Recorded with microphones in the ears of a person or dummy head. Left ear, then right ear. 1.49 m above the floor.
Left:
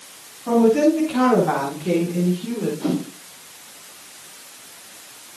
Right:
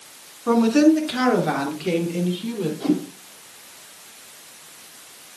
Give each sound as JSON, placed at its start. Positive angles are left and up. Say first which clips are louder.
{"t": 0.5, "sound": "a woman speaking", "louder": "left 1 dB", "side_deg": -50, "distance_m": 2.5}
{"t": 2.8, "sound": "a whoosh", "louder": "right 5 dB", "side_deg": -5, "distance_m": 5.0}